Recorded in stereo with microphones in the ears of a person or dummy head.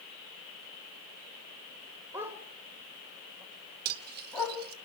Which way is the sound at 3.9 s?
55° right (ahead or behind).